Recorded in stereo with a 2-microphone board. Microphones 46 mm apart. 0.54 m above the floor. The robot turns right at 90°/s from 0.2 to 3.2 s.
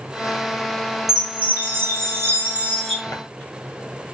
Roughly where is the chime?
Behind.